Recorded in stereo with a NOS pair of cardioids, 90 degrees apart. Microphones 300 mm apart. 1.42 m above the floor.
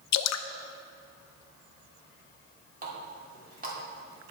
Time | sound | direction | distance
0.1 | dripping | 65° left | 0.6 m
2.8 | a running tap | 30° right | 3 m